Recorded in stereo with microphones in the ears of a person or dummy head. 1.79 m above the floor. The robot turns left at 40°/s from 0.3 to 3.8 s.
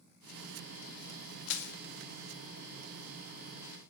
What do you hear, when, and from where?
1.5 s crushing: 70° left (ahead or behind), 1.1 m; by 1.7 s 60° left (ahead or behind), 1.1 m